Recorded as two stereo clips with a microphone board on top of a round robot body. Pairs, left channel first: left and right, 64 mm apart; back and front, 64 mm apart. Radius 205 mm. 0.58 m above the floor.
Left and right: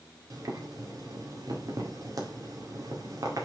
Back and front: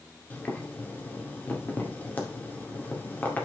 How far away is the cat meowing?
I don't hear a cat meowing.